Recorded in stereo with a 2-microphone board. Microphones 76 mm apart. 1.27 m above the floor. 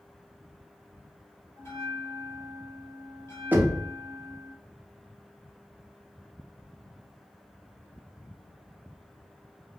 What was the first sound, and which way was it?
A bell, 35° left (ahead or behind).